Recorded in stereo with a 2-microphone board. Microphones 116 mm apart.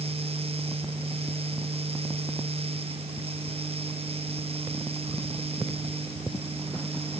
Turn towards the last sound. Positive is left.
No sound to turn to.